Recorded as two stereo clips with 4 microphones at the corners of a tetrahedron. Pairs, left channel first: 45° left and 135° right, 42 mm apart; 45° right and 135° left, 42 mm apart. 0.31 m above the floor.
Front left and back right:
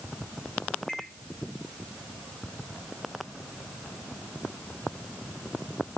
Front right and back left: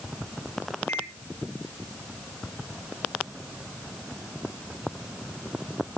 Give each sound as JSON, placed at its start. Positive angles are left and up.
{"t": 0.9, "sound": "a microwave", "azimuth_deg": -35, "distance_m": 4.5}